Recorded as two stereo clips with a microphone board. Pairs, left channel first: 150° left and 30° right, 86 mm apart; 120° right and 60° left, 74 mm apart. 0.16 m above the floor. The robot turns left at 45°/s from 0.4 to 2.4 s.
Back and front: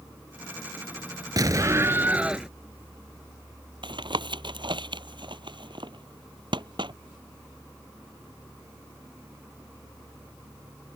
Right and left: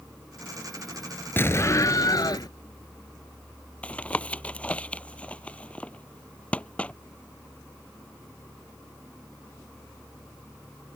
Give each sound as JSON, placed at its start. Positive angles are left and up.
{"t": 1.4, "sound": "an explosion", "azimuth_deg": -65}
{"t": 3.8, "sound": "tapping", "azimuth_deg": -50}